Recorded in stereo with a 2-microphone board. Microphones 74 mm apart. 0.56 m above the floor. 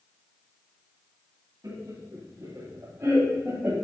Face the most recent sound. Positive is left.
turn(degrees=-20)  # may be behind; listen again after turning